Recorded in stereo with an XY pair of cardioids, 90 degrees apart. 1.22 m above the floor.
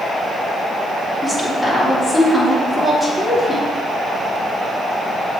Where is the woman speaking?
20° left, 3.5 m.